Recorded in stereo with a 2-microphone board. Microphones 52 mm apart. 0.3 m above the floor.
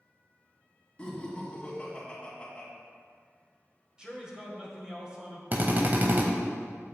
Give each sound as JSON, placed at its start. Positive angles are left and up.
{"t": 1.0, "sound": "laughter", "side_deg": 20, "distance_m": 2.5}
{"t": 4.0, "sound": "a man speaking", "side_deg": -15, "distance_m": 1.5}
{"t": 5.5, "sound": "a drill", "side_deg": -40, "distance_m": 0.9}